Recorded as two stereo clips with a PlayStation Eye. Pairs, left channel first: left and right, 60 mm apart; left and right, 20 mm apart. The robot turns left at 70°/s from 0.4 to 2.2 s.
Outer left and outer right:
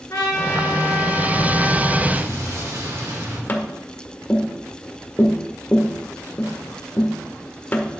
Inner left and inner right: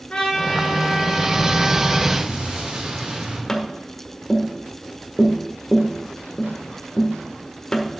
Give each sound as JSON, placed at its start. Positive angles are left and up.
{"t": 0.1, "sound": "a trumpet", "azimuth_deg": 120, "distance_m": 3.0}
{"t": 2.1, "sound": "an explosion", "side_deg": -70, "distance_m": 3.0}
{"t": 3.5, "sound": "tapping", "side_deg": 35, "distance_m": 1.1}